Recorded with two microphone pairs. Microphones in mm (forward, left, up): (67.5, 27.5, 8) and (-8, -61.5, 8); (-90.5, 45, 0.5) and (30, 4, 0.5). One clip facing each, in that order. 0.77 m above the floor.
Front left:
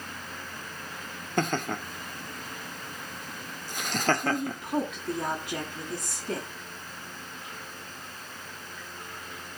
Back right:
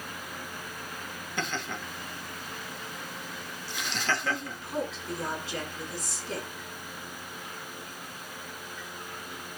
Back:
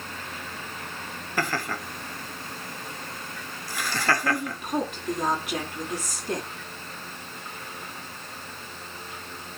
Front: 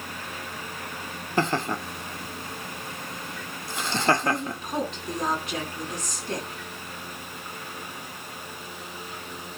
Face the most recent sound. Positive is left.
turn(degrees=80)